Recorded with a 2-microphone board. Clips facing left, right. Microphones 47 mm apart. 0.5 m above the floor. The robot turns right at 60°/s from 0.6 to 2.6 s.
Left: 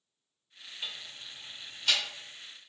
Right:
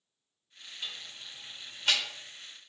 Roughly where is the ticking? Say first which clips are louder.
Even; centre.